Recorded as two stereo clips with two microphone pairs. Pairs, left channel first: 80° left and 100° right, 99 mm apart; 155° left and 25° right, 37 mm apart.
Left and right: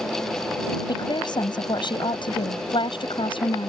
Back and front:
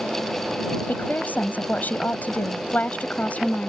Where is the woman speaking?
120° left; by 3.7 s 105° left.